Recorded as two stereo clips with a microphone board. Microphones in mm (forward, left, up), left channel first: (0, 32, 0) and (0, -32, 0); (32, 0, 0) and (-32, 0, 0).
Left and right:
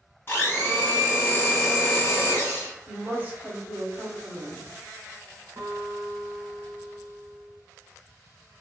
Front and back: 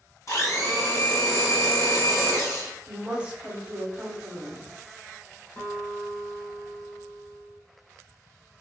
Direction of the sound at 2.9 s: 125° right.